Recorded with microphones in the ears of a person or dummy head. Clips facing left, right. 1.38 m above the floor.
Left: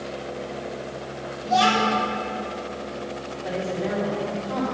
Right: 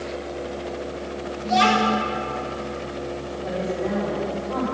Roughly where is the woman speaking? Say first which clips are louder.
Right 1 dB; centre.